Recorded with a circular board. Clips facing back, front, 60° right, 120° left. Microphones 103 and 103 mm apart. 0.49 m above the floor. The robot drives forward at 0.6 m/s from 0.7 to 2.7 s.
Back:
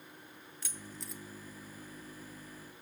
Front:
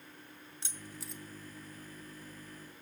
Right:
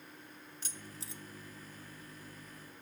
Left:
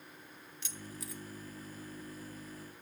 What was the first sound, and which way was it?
Keys jangling, 45° right.